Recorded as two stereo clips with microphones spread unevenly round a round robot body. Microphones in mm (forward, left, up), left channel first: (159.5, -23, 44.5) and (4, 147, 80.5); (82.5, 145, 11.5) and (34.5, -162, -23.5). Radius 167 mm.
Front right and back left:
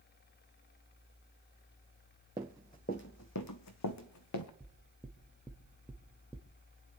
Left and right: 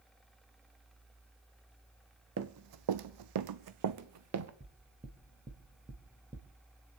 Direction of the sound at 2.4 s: 155° right.